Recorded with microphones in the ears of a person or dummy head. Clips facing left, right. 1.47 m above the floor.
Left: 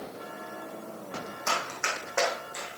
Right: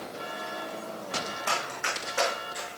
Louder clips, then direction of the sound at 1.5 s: Left 4 dB; 55° left (ahead or behind).